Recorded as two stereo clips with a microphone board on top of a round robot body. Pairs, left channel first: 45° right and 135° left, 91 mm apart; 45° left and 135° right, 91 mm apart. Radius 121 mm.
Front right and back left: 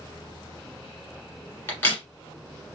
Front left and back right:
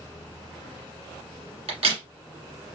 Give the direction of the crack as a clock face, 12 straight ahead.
4 o'clock.